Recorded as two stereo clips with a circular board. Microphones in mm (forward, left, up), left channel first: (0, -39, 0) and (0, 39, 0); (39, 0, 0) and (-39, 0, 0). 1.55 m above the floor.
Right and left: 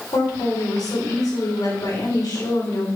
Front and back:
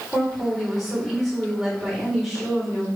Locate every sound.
0.1 s a woman speaking: 85° right, 3.5 m